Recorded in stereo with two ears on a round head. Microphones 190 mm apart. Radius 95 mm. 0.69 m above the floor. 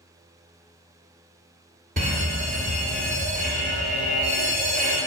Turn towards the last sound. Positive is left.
turn(degrees=-45)  # may be behind; listen again after turning